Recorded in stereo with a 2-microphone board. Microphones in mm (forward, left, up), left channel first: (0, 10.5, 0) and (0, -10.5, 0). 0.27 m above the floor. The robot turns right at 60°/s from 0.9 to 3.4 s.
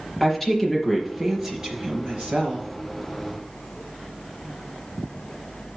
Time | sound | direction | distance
0.2 | a woman speaking | 165° left | 4 m